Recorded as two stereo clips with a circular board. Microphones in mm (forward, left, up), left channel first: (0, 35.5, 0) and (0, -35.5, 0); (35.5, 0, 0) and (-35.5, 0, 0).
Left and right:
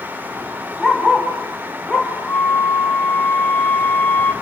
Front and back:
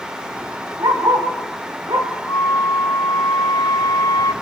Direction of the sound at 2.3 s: 30° left.